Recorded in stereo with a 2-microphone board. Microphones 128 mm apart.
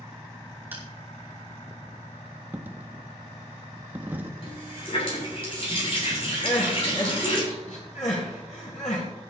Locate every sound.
0.7 s crushing: 15° right (ahead or behind), 3 m
2.5 s a dropped coin: 15° right (ahead or behind), 0.8 m
4.4 s a running tap: 50° left (ahead or behind), 7 m
6.4 s crying: 80° left, 5 m